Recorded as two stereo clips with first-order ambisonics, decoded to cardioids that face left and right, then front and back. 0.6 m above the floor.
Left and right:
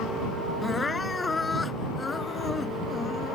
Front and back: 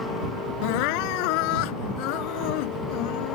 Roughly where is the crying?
Ahead.